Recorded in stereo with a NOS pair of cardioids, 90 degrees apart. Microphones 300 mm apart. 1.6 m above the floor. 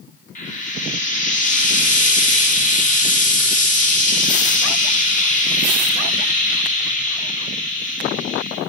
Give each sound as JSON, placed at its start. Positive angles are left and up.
{"t": 0.3, "sound": "frying", "azimuth_deg": 25, "distance_m": 0.8}